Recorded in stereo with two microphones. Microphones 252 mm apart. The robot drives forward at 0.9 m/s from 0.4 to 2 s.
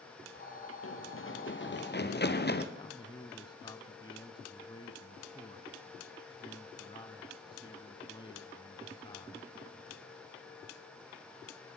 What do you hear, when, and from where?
0.8 s running footsteps: 55° left (ahead or behind), 2.5 m; by 2.6 s 40° left (ahead or behind), 1.9 m
2.8 s a man speaking: 20° left (ahead or behind), 1.0 m